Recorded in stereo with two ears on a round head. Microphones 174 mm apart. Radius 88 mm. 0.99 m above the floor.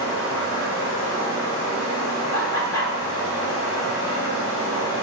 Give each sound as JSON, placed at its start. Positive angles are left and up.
{"t": 0.0, "sound": "running water", "side_deg": 80, "distance_m": 3.0}
{"t": 2.3, "sound": "laughter", "side_deg": 85, "distance_m": 2.5}